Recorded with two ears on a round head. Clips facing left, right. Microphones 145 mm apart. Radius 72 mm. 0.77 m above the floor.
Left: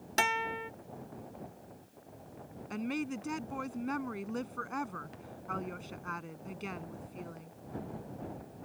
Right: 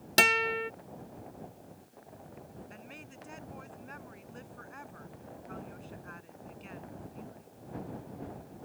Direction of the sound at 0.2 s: 40° right (ahead or behind).